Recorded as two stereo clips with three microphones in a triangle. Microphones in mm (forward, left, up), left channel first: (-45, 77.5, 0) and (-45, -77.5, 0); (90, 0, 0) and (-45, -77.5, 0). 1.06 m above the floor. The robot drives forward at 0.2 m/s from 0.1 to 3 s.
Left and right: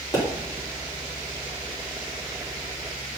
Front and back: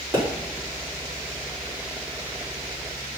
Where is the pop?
155° left, 3 m.